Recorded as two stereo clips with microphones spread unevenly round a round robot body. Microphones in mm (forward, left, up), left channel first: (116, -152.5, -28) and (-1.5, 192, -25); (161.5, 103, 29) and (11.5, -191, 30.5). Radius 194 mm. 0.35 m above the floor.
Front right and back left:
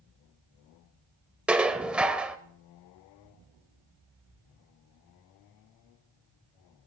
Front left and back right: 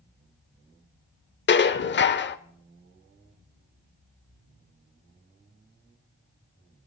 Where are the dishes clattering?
25° left, 0.8 m.